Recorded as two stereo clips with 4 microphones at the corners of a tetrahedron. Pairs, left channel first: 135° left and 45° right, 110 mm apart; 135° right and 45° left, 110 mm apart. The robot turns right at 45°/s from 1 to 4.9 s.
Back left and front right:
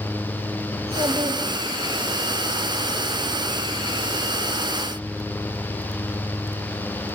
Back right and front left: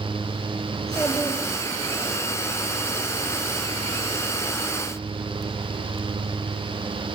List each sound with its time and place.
0.7 s a child speaking: 50° right, 2.0 m; by 2.1 s straight ahead, 2.0 m